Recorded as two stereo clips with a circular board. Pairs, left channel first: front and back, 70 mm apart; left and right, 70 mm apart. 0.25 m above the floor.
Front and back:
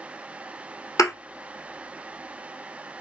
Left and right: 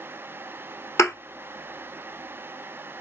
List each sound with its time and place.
1.0 s a thud: 40° left, 1.2 m